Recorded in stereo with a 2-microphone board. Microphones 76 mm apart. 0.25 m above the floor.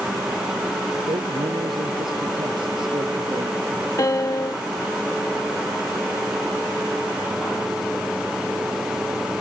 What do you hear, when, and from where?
1.1 s a man speaking: 80° right
4.0 s a piano: 45° left (ahead or behind)